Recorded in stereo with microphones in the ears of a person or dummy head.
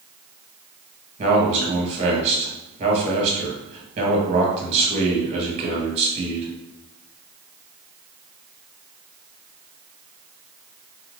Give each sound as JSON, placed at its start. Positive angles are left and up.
{"t": 1.2, "sound": "a man speaking", "side_deg": -40, "distance_m": 1.5}